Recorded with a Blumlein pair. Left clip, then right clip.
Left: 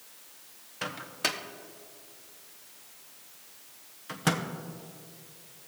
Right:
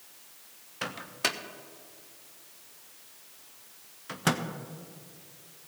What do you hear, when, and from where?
0.8 s a microwave: 5° right, 0.7 m